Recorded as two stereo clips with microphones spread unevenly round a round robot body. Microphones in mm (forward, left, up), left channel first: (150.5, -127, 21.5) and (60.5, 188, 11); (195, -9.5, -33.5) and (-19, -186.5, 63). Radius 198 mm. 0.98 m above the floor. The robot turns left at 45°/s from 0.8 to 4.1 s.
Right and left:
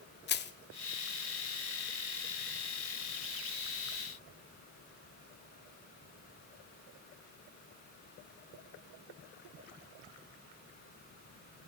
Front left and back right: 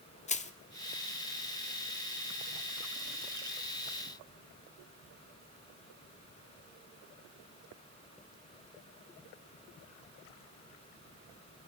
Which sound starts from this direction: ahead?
Crushing, at 0.3 s.